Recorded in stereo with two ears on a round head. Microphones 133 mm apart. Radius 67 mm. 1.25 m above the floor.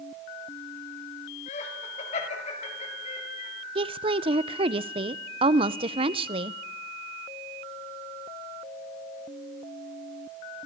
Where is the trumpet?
I don't hear a trumpet.